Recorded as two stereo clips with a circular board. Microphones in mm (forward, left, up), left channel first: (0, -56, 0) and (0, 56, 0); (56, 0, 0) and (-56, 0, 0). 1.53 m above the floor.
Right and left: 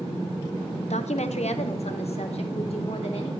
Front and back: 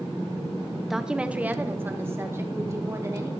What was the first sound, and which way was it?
A woman speaking, 90° right.